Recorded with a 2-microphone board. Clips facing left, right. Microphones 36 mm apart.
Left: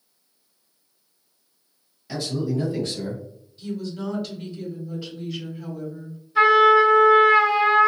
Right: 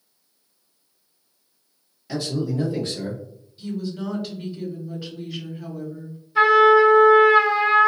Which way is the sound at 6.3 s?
5° right (ahead or behind).